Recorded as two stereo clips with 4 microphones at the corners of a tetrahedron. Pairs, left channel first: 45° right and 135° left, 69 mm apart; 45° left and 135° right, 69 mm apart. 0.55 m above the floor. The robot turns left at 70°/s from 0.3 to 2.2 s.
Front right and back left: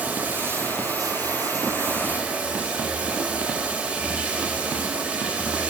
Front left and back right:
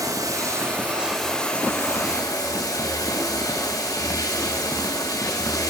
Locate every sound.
0.0 s running water: 160° right, 2.5 m; by 5.7 s 70° left, 2.5 m